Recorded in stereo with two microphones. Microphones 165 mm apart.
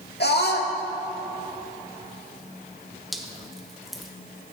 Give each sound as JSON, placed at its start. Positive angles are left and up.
{"t": 0.2, "sound": "a scream", "side_deg": 80, "distance_m": 1.6}
{"t": 3.1, "sound": "dripping", "side_deg": 0, "distance_m": 1.1}